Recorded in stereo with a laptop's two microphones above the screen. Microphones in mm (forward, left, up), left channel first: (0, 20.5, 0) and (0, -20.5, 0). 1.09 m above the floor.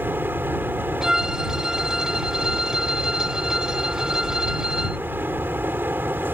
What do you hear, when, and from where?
0.0 s a fan: 60° right (ahead or behind)
1.0 s a violin: 15° right (ahead or behind)